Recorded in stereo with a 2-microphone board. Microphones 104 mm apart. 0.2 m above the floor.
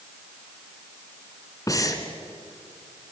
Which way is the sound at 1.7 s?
35° left (ahead or behind).